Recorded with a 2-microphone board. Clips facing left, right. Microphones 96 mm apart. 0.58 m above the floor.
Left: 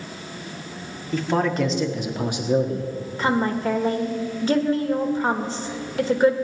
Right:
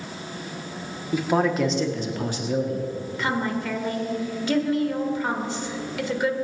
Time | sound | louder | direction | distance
1.1 | a man speaking | even | 10° right (ahead or behind) | 1.5 m
3.2 | a woman speaking | left 5 dB | 35° left (ahead or behind) | 1.6 m